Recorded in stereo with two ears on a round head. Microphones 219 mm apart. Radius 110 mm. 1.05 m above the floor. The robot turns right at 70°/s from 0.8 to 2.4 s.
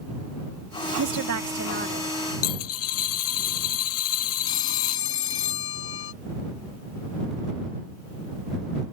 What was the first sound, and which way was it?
A woman speaking, 100° right.